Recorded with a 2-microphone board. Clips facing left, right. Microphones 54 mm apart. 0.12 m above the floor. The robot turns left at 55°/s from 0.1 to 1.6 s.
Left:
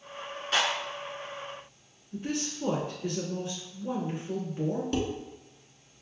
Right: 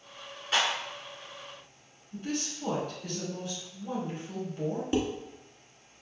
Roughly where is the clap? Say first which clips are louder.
Even; centre.